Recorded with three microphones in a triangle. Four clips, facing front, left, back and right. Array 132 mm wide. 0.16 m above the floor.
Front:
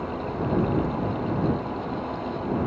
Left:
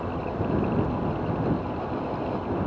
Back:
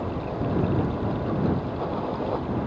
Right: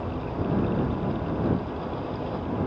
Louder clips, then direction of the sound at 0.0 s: Left 1 dB, even; 175° left.